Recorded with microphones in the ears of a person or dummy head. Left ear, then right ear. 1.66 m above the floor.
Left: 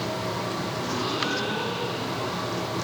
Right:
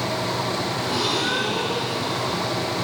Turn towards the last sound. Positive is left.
turn(degrees=-85)